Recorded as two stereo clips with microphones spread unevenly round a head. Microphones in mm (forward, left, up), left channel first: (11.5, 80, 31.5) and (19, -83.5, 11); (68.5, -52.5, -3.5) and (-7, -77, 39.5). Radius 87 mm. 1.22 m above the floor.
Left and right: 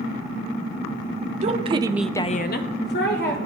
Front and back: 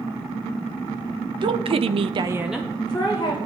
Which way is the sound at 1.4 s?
130° right.